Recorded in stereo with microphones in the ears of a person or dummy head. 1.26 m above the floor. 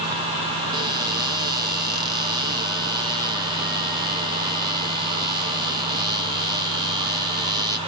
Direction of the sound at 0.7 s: 20° right (ahead or behind).